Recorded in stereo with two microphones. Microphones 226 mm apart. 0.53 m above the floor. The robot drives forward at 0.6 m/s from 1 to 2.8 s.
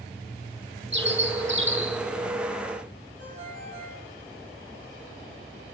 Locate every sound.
0.9 s a bird: 55° right (ahead or behind), 1.5 m
3.2 s a ringtone: 35° right (ahead or behind), 8 m